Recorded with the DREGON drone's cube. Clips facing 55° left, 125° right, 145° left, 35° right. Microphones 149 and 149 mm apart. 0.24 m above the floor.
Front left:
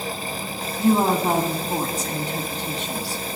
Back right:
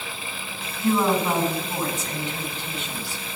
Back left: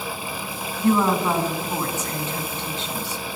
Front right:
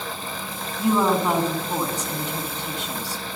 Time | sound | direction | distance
0.8 | a woman speaking | 35° left | 1.5 m